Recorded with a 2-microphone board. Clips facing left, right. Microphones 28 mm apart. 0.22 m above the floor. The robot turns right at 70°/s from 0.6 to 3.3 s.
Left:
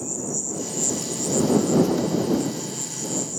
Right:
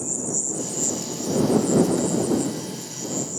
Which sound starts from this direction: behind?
An insect, at 0.0 s.